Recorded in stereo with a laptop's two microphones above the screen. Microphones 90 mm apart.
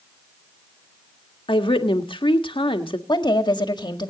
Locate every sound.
1.5 s a woman speaking: 70° left (ahead or behind), 1.6 m
3.1 s a woman speaking: 55° left (ahead or behind), 1.8 m